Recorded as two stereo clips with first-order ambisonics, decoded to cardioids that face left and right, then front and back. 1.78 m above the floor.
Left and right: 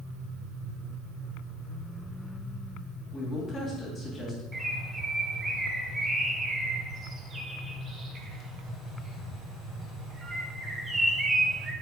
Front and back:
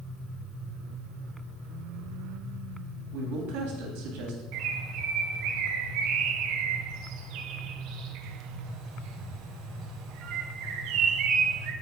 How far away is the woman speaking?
About 2.5 m.